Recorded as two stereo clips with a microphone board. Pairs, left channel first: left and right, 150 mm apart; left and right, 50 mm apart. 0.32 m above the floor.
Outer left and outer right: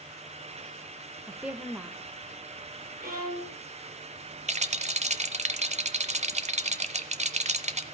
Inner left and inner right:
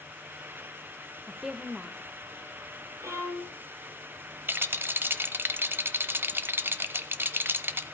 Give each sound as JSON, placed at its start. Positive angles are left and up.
{"t": 1.3, "sound": "a woman speaking", "side_deg": -10, "distance_m": 1.1}
{"t": 3.0, "sound": "a violin", "side_deg": -80, "distance_m": 6.0}
{"t": 4.5, "sound": "a rattle", "side_deg": -50, "distance_m": 0.9}